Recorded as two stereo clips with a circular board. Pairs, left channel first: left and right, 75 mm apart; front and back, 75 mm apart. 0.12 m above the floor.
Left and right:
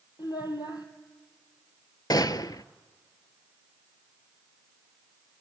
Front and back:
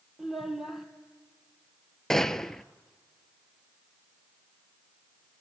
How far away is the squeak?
I don't hear a squeak.